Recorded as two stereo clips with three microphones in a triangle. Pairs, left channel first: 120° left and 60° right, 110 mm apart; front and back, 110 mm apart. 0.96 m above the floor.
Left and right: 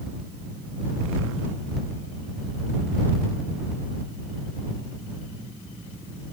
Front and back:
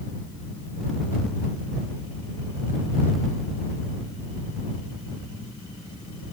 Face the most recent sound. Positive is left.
No sound to turn to.